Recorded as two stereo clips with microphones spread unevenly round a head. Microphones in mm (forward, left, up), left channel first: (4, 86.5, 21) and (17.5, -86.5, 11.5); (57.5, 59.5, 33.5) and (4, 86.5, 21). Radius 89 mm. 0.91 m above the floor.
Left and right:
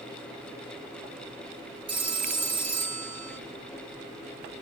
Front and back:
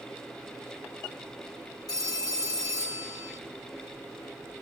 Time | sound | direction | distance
1.9 | a phone ringing | 20° right | 1.1 m